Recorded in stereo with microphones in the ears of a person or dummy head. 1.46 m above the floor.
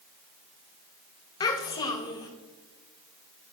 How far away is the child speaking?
About 1.0 m.